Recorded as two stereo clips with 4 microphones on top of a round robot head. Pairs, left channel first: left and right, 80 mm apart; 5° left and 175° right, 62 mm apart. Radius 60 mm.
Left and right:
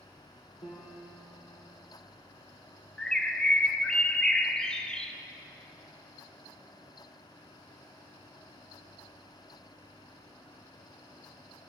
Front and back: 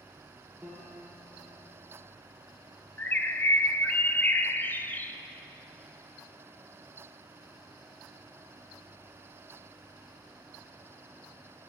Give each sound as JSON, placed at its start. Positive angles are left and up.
{"t": 0.6, "sound": "a piano", "azimuth_deg": 100, "distance_m": 3.5}
{"t": 3.0, "sound": "a bird", "azimuth_deg": 20, "distance_m": 0.7}